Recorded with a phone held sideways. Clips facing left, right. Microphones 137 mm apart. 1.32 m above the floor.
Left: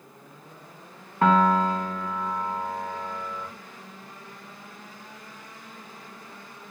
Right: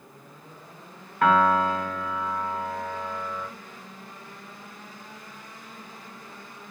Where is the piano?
30° left (ahead or behind), 0.9 m.